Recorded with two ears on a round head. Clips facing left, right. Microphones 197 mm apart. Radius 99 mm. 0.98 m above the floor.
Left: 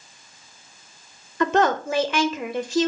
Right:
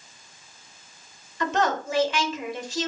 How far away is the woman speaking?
About 0.7 m.